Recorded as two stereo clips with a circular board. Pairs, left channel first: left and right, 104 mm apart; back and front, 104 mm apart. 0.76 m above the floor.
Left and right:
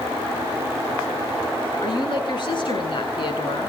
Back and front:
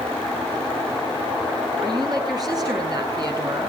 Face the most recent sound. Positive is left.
turn(degrees=50)